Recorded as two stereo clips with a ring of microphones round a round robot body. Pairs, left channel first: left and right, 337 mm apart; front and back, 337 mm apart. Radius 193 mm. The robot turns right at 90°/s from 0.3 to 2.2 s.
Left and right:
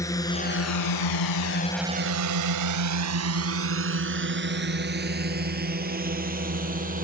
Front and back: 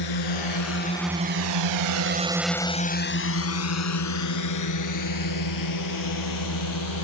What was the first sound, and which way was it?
A drone, 10° left.